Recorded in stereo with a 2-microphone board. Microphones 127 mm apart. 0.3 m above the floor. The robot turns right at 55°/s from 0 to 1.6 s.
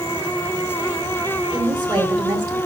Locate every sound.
1.5 s a woman speaking: 20° right (ahead or behind), 1.7 m